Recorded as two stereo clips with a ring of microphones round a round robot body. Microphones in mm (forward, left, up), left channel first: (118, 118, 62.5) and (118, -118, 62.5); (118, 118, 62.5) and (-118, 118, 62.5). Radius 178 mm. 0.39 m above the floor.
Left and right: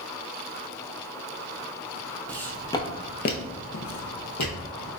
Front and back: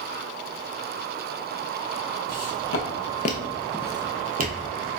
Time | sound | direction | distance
2.3 | footsteps | 5° left | 0.9 m